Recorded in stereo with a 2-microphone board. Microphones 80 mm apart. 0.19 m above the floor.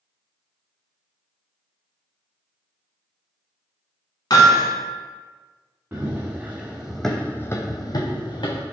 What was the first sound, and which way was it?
Hammering, 55° left (ahead or behind).